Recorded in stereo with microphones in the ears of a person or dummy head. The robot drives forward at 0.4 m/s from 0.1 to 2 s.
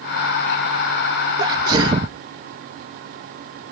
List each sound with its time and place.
1.4 s a sneeze: 25° right (ahead or behind)